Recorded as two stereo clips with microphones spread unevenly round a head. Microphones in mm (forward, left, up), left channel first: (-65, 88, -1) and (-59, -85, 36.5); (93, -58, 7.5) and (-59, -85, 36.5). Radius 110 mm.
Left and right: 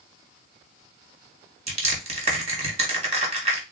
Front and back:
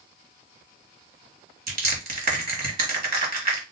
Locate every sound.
1.7 s crushing: 140° right, 1.5 m